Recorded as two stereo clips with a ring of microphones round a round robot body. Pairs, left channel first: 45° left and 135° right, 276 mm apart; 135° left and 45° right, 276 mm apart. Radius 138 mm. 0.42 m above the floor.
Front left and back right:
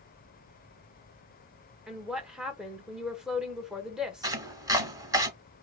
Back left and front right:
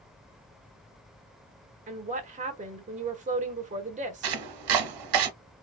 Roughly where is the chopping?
Ahead right.